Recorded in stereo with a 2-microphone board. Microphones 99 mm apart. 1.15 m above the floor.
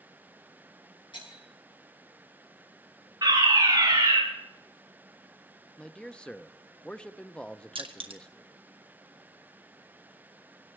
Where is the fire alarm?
40° right (ahead or behind), 4.5 m.